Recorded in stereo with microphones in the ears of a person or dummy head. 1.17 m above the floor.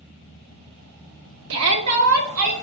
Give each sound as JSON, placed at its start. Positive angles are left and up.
{"t": 1.5, "sound": "a shout", "side_deg": -60, "distance_m": 0.6}